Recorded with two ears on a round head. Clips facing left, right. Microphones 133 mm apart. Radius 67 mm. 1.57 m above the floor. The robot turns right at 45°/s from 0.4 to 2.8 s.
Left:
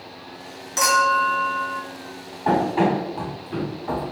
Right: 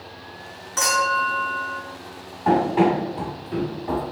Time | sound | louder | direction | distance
0.8 | a clink | left 3 dB | 145° left | 1.5 m
2.5 | running footsteps | right 1 dB | 10° right (ahead or behind) | 2.0 m